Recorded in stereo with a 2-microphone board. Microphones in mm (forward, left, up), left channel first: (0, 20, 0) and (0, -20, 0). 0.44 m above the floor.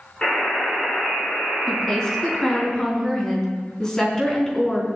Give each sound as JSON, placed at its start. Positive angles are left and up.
{"t": 0.2, "sound": "a buzzer", "side_deg": 25, "distance_m": 4.5}
{"t": 1.7, "sound": "a woman speaking", "side_deg": 15, "distance_m": 4.0}